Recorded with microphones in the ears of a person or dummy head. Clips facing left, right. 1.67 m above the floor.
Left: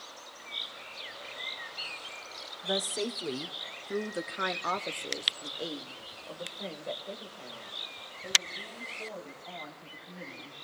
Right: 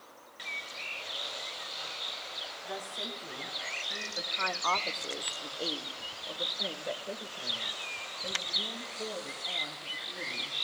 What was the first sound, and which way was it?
A woman speaking, 60° left (ahead or behind).